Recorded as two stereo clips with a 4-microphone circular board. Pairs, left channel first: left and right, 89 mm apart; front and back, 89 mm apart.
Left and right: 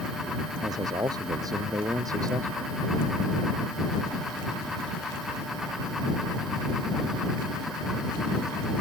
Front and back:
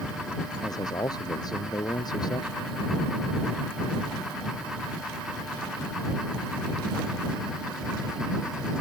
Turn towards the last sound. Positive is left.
turn(degrees=-40)